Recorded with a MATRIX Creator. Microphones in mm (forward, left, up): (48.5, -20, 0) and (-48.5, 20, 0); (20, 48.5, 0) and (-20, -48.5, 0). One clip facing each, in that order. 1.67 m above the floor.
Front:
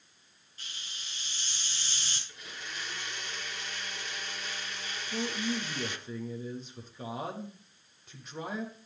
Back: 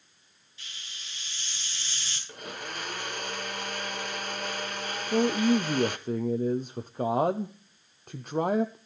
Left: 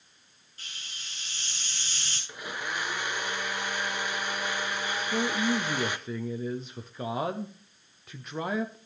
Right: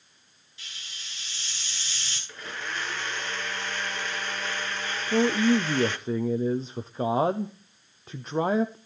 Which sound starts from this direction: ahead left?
A hiss, at 0.6 s.